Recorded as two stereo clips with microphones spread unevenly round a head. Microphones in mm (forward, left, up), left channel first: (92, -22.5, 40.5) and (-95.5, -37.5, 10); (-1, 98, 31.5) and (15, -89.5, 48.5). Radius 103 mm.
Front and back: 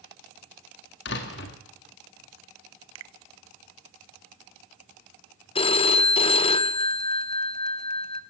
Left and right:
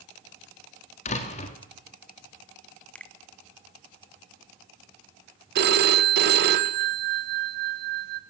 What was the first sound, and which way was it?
A door slam, 40° left.